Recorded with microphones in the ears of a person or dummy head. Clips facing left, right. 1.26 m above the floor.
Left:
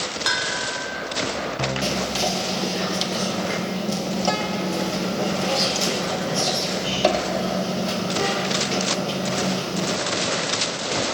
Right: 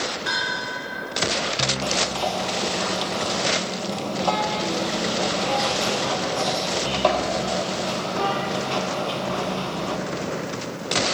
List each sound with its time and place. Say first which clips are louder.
0.3 s a bell: left 2 dB; 75° left (ahead or behind), 1.6 m
1.8 s whispering: even; 25° left (ahead or behind), 0.7 m